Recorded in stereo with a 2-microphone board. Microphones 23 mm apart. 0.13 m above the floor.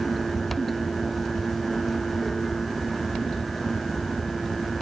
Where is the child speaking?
I don't hear a child speaking.